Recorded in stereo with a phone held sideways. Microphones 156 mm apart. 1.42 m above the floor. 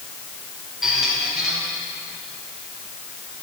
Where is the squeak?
5° right (ahead or behind), 2.5 m.